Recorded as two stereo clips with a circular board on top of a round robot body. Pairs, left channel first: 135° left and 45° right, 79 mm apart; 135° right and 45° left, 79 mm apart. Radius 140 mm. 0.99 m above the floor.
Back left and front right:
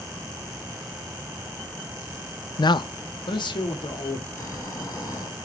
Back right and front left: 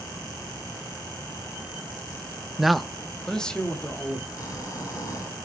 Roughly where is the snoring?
Behind.